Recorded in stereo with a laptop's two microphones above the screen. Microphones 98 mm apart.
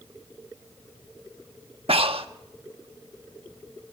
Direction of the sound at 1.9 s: 75° right (ahead or behind).